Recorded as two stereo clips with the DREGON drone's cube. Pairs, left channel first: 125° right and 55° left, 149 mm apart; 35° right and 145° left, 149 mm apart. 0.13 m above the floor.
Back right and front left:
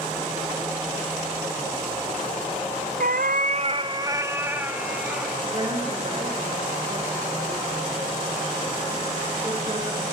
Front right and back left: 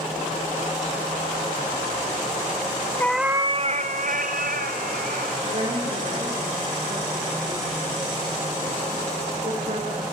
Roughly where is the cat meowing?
Ahead left.